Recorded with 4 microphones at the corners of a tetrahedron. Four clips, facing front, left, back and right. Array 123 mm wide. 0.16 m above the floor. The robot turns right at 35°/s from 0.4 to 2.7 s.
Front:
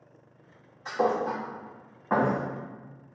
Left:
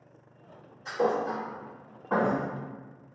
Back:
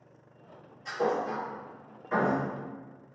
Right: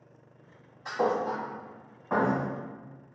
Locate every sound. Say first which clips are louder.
0.8 s a thud: even, front 3 dB; 40° right, 2 m; by 2.4 s 15° left, 2 m